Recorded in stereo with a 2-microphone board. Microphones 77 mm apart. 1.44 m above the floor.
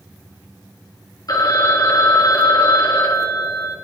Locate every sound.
1.3 s a phone ringing: 55° left (ahead or behind), 1.3 m